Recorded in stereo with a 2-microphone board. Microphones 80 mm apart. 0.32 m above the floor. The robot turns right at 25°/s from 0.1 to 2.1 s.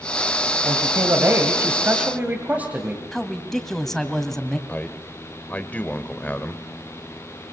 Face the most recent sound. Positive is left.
turn(degrees=20)  # may be behind; listen again after turning